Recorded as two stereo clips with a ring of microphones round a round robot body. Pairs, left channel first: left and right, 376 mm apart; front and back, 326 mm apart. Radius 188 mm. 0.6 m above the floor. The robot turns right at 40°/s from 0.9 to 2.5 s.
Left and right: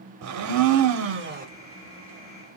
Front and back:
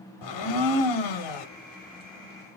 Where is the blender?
40° right, 0.7 m; by 1.5 s 20° right, 0.7 m.